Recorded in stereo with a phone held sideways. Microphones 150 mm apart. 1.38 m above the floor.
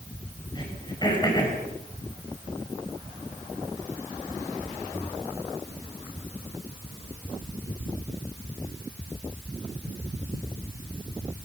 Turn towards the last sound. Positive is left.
turn(degrees=30)  # may be behind; listen again after turning